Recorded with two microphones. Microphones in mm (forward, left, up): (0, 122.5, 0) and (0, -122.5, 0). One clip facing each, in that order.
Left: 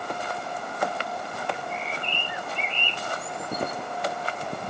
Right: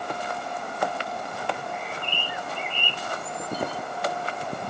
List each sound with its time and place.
1.5 s a bird: 20° left (ahead or behind), 0.9 m